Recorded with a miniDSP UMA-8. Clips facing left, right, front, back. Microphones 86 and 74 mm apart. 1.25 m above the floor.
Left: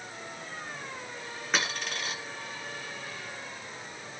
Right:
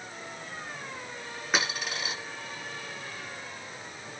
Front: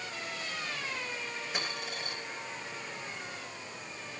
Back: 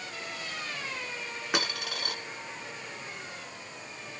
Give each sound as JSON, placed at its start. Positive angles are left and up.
{"t": 1.5, "sound": "a dropped coin", "azimuth_deg": -175, "distance_m": 5.5}